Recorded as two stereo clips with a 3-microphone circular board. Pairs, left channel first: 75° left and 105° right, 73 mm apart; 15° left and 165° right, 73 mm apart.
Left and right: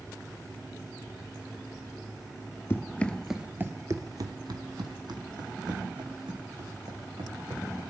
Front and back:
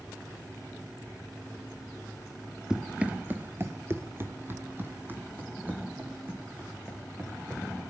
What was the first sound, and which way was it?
Running footsteps, 115° left.